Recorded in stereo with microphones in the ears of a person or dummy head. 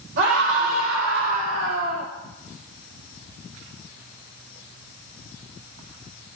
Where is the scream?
70° right (ahead or behind), 4 m; by 2.1 s 75° right (ahead or behind), 3 m.